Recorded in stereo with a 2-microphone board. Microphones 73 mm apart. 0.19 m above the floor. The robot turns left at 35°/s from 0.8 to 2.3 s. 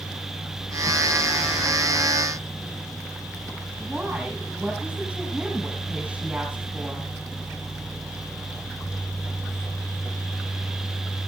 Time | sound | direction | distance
3.8 | a woman speaking | 20° right (ahead or behind) | 7.5 m